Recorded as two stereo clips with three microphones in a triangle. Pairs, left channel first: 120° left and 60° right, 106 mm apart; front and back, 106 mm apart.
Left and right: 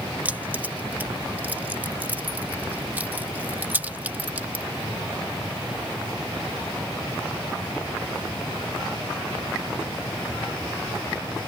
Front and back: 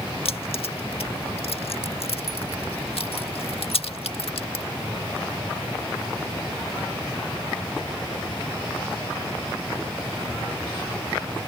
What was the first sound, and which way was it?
Keys jangling, 10° left.